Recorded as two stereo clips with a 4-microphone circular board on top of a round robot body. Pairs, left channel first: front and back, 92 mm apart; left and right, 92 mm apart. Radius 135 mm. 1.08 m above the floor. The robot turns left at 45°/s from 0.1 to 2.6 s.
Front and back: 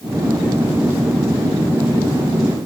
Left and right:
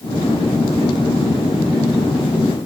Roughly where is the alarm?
I don't hear an alarm.